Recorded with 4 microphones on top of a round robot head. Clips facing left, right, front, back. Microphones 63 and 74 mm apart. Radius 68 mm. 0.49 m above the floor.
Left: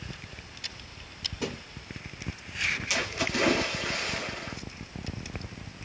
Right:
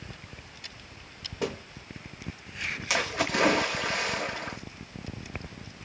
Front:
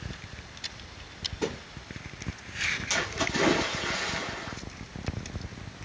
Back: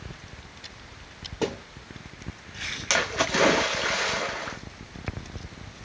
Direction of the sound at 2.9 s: 140° right.